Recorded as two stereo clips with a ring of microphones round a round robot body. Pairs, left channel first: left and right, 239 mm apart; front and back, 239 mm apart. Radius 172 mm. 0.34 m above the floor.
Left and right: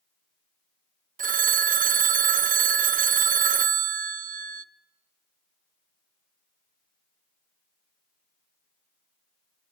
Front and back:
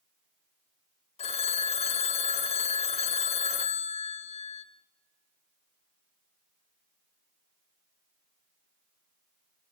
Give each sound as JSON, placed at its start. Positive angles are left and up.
{"t": 1.2, "sound": "a phone ringing", "azimuth_deg": -55, "distance_m": 0.6}